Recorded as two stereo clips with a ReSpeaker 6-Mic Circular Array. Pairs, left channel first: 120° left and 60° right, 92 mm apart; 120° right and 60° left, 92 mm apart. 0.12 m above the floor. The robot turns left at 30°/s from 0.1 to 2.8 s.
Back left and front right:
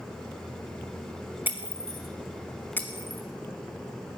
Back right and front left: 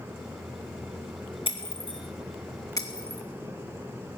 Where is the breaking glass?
130° right, 1.6 m; by 3.2 s 170° right, 1.6 m.